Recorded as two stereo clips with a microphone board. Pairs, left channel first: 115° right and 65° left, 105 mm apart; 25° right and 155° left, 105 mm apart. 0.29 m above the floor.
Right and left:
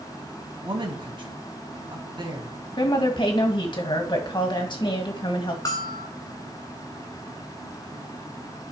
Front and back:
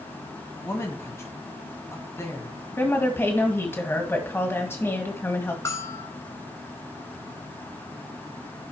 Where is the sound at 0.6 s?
35° left, 1.9 m.